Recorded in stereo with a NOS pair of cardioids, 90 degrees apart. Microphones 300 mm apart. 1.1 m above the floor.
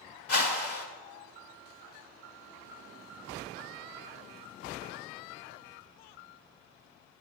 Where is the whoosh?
55° left, 1.7 m.